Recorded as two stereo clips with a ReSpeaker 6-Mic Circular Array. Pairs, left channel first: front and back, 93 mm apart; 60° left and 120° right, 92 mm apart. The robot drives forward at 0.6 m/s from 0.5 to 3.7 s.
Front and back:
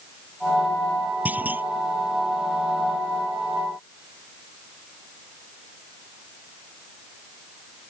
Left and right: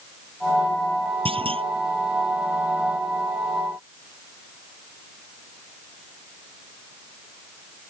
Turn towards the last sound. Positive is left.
turn(degrees=-130)